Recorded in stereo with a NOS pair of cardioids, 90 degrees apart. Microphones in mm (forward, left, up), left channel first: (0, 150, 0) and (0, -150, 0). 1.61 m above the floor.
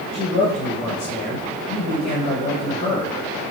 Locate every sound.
0.1 s a man speaking: 45° left, 1.9 m